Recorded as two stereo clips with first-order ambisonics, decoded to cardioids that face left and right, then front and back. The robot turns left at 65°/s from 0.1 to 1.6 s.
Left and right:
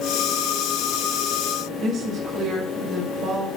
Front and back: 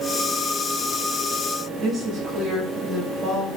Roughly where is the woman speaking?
Behind right.